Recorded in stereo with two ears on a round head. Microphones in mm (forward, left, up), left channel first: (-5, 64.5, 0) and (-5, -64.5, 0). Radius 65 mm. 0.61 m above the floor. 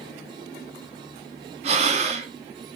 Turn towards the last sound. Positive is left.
turn(degrees=-45)  # may be behind; listen again after turning